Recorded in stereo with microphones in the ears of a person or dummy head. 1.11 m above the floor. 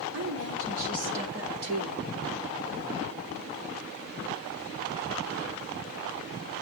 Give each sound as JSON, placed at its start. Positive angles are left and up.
{"t": 0.1, "sound": "a woman speaking", "side_deg": -80, "distance_m": 3.5}